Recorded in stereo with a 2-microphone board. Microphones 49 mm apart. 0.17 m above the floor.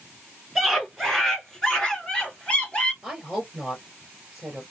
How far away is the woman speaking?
About 2.5 m.